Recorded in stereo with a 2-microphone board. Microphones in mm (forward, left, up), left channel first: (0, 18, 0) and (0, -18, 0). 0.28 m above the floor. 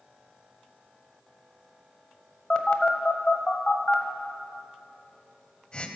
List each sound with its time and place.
2.5 s a phone buzzing: 30° left (ahead or behind), 0.9 m